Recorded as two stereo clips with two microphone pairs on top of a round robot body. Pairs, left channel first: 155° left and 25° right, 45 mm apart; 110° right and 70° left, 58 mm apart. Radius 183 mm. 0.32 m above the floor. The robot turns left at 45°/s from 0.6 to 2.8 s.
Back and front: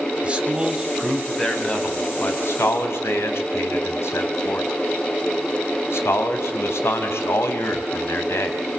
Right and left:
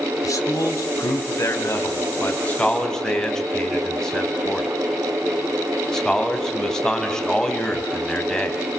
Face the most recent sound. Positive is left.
turn(degrees=170)